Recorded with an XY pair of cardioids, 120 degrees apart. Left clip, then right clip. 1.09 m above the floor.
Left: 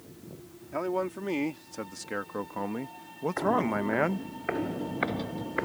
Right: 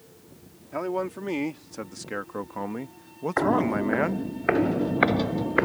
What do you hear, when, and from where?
0.7 s a man speaking: 10° right; by 4.3 s 5° right
3.4 s footsteps: 45° right